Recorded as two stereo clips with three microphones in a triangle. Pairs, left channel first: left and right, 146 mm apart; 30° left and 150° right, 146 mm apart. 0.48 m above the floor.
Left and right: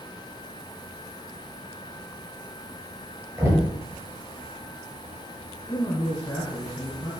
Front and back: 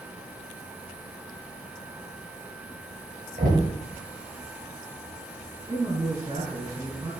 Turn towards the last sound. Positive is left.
turn(degrees=155)